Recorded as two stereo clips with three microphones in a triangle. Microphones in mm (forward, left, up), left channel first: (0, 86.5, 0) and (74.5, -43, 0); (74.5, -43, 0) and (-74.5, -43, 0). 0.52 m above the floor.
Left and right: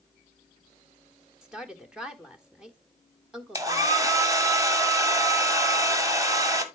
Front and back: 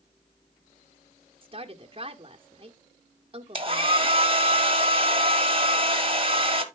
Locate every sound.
1.4 s a woman speaking: 145° right, 1.1 m
3.5 s a hair dryer: 125° right, 1.4 m